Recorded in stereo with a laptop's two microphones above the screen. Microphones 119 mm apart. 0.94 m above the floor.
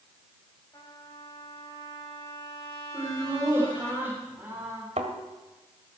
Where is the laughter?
20° right (ahead or behind), 3.5 m.